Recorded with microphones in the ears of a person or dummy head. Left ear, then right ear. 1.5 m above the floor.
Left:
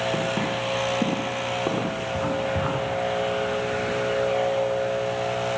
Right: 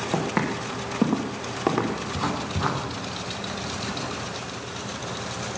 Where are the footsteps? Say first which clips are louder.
Left 1 dB; 70° right (ahead or behind), 4 m; by 2.0 s 60° right (ahead or behind), 4 m.